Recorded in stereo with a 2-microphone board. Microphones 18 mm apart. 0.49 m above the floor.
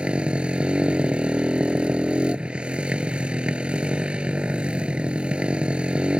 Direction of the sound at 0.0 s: 70° right (ahead or behind).